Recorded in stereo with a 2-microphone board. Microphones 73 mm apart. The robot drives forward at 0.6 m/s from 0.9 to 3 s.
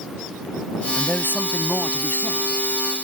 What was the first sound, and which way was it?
A man speaking, 30° left (ahead or behind).